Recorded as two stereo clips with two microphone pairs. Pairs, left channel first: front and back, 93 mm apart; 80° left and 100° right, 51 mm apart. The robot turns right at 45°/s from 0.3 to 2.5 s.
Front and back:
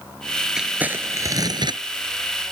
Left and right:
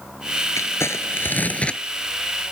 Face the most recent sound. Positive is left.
turn(degrees=-175)